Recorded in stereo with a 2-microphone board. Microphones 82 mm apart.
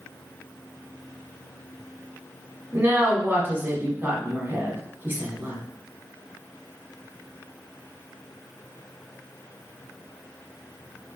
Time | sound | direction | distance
2.7 | a woman speaking | 25° right (ahead or behind) | 1.1 m